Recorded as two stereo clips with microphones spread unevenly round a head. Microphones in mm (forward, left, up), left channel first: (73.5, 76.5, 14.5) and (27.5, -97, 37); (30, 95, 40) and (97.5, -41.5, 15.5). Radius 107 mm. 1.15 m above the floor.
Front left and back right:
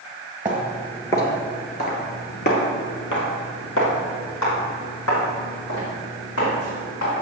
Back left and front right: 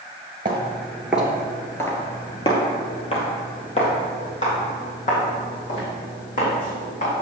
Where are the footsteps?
75° right, 1.1 m; by 7.1 s 85° left, 4.5 m.